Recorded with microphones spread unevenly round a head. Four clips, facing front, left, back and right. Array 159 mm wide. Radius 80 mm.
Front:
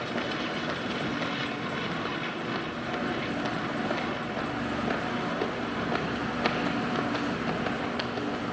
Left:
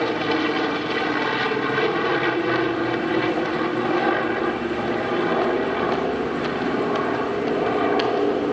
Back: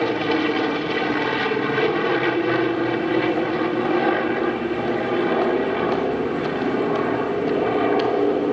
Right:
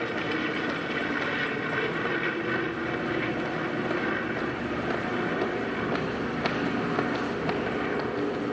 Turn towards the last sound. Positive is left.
turn(degrees=150)